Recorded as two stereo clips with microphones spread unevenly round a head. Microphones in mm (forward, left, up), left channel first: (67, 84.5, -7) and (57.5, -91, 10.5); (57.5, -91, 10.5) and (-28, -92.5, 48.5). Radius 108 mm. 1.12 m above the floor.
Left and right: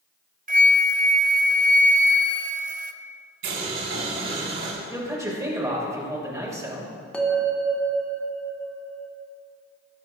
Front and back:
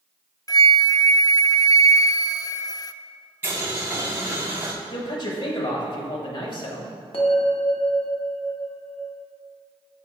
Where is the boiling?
115° right, 4.5 m.